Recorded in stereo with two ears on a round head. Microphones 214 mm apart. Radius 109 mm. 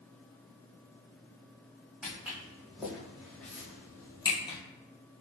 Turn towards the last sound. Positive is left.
turn(degrees=20)  # may be behind; listen again after turning